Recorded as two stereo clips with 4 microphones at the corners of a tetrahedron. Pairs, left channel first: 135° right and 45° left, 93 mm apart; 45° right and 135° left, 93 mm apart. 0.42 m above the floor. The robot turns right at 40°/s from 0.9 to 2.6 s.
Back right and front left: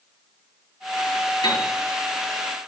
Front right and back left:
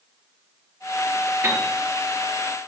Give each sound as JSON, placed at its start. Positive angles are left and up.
{"t": 1.4, "sound": "a piano", "azimuth_deg": -160, "distance_m": 5.5}